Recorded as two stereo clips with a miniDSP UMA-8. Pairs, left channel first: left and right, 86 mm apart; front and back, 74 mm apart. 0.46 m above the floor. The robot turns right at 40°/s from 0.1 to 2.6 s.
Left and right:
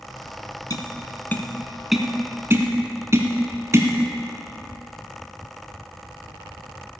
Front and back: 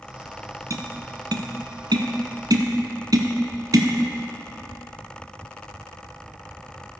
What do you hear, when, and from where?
0.7 s tapping: 135° left, 1.3 m; by 3.9 s 150° right, 1.3 m